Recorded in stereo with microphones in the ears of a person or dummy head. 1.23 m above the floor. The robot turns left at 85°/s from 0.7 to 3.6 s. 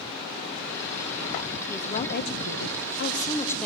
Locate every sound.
1.7 s a woman speaking: 170° left, 1.0 m; by 3.7 s 5° left, 1.0 m